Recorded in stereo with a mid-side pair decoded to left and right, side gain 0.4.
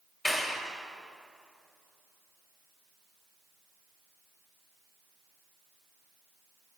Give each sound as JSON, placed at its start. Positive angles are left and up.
{"t": 0.2, "sound": "a clap", "azimuth_deg": 20, "distance_m": 2.5}